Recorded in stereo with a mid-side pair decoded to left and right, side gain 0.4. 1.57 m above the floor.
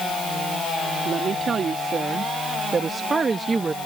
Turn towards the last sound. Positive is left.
turn(degrees=-30)